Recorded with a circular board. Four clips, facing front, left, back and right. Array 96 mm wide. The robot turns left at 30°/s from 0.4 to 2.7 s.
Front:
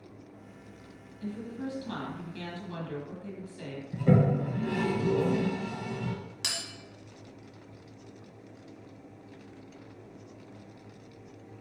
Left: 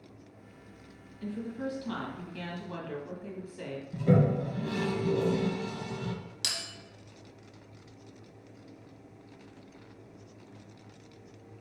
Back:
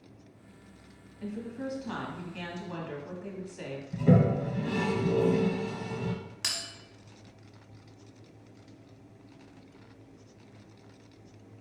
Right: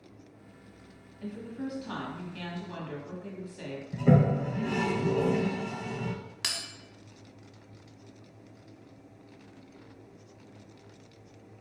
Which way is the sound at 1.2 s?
145° right.